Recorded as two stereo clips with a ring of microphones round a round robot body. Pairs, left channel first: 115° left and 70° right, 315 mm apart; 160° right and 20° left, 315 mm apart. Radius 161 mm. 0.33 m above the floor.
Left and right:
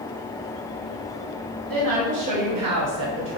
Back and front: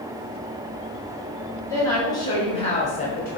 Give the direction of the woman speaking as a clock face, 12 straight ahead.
3 o'clock.